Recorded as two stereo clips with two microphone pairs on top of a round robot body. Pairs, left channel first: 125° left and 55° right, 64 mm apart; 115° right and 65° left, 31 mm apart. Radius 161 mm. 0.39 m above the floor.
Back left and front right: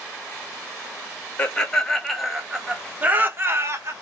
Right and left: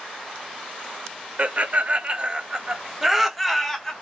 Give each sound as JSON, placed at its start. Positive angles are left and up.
{"t": 1.4, "sound": "laughter", "azimuth_deg": 50, "distance_m": 1.4}